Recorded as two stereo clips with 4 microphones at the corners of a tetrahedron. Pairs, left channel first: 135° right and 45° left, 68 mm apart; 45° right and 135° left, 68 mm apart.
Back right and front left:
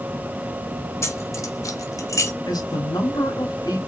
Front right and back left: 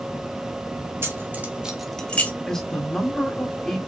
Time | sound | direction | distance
1.0 | keys jangling | 175° right | 1.7 m
2.5 | a man speaking | 130° right | 3.5 m